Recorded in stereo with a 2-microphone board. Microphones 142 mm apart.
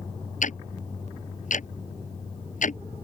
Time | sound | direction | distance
0.4 | ticking | 65° left (ahead or behind) | ?